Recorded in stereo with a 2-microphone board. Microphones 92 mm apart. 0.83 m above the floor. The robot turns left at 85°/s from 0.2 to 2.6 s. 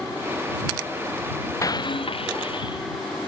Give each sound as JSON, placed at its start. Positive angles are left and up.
{"t": 1.6, "sound": "breaking glass", "azimuth_deg": 140}